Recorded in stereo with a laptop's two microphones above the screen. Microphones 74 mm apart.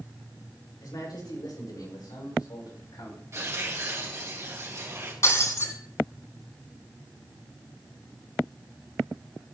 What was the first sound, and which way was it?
A man speaking, 75° left (ahead or behind).